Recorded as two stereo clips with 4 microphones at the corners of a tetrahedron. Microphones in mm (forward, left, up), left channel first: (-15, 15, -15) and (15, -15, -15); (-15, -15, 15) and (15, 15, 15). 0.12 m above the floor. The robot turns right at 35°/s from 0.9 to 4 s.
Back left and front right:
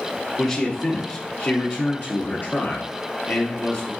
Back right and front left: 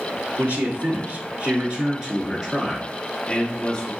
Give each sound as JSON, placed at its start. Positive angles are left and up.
{"t": 0.4, "sound": "a man speaking", "azimuth_deg": 70, "distance_m": 1.8}